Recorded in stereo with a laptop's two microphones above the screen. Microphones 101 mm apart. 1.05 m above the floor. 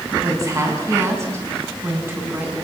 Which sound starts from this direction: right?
A woman speaking, at 0.2 s.